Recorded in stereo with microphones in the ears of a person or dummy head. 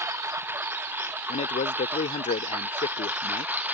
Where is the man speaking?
40° left (ahead or behind).